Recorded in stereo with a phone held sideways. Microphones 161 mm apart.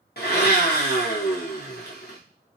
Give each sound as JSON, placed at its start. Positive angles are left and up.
{"t": 0.2, "sound": "a blender", "side_deg": 85, "distance_m": 0.8}